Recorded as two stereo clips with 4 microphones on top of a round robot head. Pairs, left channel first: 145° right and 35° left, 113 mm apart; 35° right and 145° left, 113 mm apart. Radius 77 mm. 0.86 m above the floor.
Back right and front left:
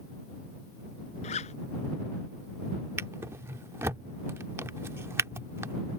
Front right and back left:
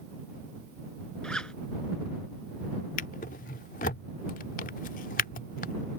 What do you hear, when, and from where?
1.2 s a zipper: 115° right
3.0 s a drawer: 35° right